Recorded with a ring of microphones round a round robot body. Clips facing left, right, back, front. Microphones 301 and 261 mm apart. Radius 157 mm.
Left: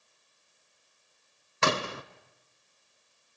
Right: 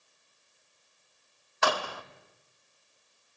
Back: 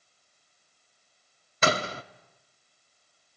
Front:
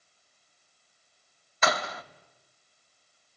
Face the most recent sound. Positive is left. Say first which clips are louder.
# left 1 dB, back 3 dB
turn(degrees=140)